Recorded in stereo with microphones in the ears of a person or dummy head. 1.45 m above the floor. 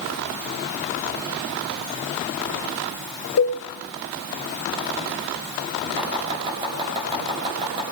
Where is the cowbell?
80° left, 3 m.